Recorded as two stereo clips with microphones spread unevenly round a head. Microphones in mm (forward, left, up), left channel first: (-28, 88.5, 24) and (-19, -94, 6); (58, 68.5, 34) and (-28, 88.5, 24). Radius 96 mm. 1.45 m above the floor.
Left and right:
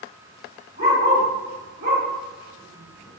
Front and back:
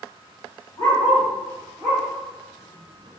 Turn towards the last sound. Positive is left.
turn(degrees=-125)